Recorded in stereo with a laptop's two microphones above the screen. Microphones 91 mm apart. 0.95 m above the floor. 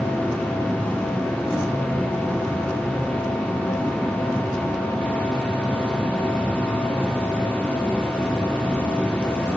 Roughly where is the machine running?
Centre.